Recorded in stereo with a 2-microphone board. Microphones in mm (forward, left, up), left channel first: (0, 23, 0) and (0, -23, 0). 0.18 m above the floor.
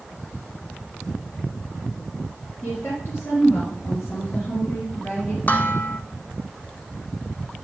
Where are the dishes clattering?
40° left (ahead or behind), 0.9 m.